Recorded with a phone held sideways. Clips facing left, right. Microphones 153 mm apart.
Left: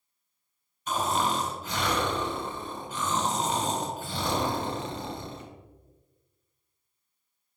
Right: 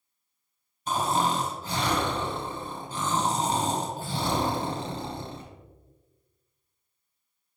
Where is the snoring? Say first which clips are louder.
Right 2 dB; 30° right (ahead or behind), 1.1 m.